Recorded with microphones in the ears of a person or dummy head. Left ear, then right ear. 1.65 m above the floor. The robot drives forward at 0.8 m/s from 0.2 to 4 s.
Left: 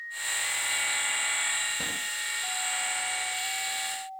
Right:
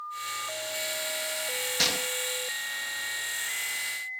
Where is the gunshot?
75° right (ahead or behind); by 2.1 s 80° right.